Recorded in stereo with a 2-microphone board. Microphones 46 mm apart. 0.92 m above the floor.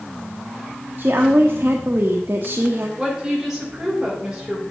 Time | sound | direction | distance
1.0 | a woman speaking | 55° right (ahead or behind) | 1.2 m
3.0 | a woman speaking | 10° right (ahead or behind) | 5.5 m